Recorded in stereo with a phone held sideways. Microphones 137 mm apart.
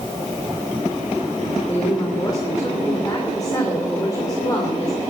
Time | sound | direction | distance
1.7 | a woman speaking | 25° left (ahead or behind) | 3 m